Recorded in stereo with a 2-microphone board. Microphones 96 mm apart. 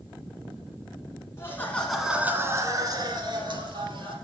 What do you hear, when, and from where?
1.4 s laughter: 30° left (ahead or behind), 1.2 m; by 4.2 s 65° right (ahead or behind), 2.5 m